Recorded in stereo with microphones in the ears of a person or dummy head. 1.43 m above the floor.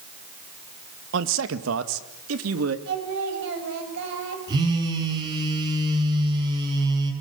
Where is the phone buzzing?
25° right (ahead or behind), 7 m.